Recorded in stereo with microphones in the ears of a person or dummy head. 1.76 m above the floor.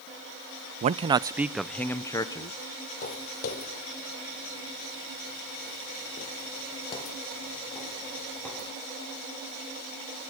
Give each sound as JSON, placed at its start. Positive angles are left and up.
{"t": 0.8, "sound": "a man speaking", "side_deg": -35, "distance_m": 0.8}
{"t": 3.0, "sound": "footsteps", "side_deg": 45, "distance_m": 3.5}